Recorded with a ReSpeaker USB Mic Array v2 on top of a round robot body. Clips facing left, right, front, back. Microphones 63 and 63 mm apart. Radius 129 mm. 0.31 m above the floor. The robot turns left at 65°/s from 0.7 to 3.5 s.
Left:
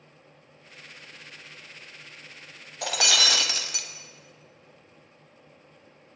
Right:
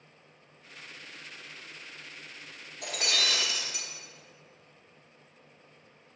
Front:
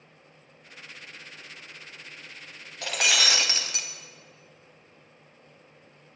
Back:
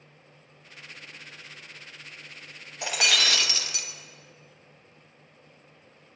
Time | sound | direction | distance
2.8 | breaking glass | 105° left | 0.6 m